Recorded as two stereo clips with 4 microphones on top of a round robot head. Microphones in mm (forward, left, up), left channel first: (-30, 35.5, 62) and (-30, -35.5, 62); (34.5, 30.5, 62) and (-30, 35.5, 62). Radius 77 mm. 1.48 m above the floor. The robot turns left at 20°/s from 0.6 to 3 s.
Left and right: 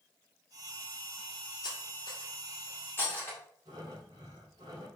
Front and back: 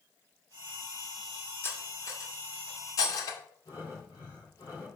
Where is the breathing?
50° right, 3.5 m.